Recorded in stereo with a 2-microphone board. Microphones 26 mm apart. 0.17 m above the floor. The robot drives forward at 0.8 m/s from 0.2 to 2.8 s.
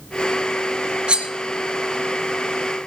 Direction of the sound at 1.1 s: 45° right (ahead or behind).